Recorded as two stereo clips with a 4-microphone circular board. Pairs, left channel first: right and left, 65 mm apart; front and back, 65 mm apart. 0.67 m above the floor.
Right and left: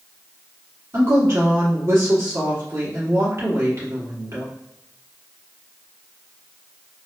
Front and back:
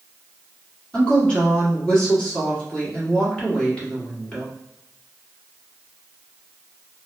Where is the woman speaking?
70° left, 1.5 m.